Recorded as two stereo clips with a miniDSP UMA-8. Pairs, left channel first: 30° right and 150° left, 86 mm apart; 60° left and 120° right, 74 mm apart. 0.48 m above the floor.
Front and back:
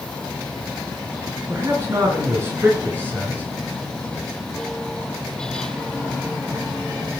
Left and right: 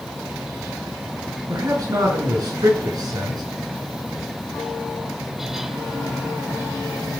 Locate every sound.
1.5 s a man speaking: 155° right, 7 m; by 3.4 s 145° right, 7 m